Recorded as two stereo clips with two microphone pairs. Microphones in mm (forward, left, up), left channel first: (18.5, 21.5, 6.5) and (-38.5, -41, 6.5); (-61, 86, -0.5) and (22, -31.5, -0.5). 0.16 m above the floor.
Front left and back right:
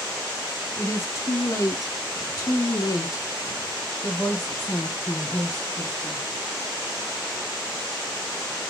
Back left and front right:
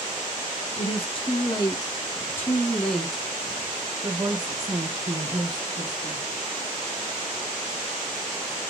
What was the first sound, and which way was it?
A woman speaking, 95° left.